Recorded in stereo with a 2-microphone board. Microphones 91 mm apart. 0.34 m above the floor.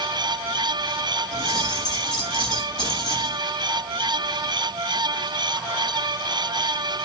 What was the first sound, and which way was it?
Keys jangling, 60° left (ahead or behind).